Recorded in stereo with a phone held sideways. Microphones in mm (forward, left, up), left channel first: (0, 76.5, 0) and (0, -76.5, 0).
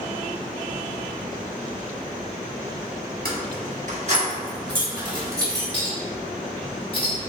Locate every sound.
3.2 s keys jangling: 75° right (ahead or behind), 1.0 m; by 5.6 s 20° right (ahead or behind), 1.9 m
5.7 s a clink: 40° left (ahead or behind), 1.7 m